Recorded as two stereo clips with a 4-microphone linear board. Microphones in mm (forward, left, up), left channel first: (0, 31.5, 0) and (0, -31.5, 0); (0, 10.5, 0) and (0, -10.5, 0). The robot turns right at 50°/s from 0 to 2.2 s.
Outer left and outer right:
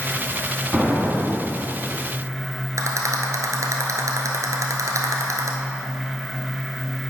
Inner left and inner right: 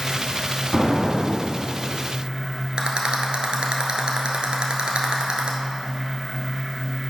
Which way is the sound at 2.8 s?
60° right (ahead or behind).